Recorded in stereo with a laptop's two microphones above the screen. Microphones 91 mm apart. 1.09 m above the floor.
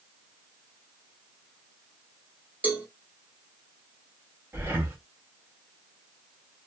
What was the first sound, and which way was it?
A cowbell, 20° right (ahead or behind).